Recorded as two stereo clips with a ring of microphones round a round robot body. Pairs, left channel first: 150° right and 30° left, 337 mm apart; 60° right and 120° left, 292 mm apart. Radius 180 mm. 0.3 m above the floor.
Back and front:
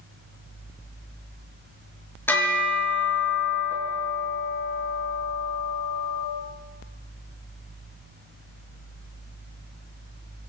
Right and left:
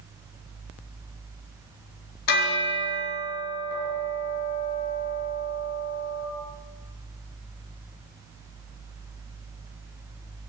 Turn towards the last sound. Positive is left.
turn(degrees=-65)